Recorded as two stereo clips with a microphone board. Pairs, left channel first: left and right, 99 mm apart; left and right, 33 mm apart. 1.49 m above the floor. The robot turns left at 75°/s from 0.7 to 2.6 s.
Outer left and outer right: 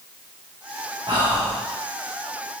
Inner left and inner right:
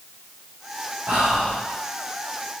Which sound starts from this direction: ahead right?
Whispering, at 1.1 s.